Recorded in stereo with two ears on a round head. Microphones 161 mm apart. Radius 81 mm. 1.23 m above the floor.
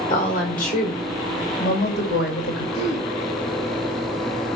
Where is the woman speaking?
45° left (ahead or behind), 5 m; by 2.6 s 65° left (ahead or behind), 7 m.